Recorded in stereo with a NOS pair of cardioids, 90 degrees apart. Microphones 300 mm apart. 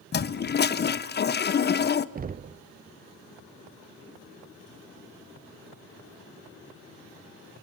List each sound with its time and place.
0.1 s a toilet flushing: 35° left, 0.9 m
2.1 s knocking: 30° right, 0.7 m